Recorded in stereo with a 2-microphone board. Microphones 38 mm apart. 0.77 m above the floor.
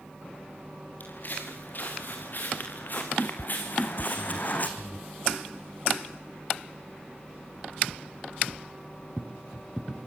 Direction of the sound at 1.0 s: 55° left (ahead or behind).